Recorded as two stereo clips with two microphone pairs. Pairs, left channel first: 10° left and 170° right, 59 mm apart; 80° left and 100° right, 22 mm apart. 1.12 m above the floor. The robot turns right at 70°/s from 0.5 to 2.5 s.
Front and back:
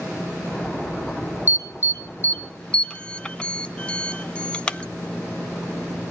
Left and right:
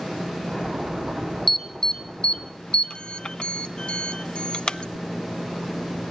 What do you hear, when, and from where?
1.5 s an alarm: 5° left, 0.5 m; by 4.8 s 75° left, 0.5 m